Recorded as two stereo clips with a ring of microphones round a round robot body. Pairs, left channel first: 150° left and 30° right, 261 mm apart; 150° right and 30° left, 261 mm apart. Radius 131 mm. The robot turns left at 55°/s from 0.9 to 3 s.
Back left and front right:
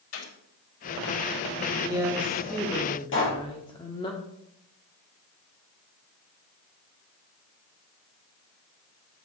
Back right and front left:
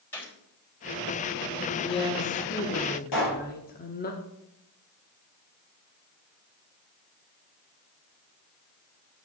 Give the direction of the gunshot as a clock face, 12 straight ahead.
8 o'clock.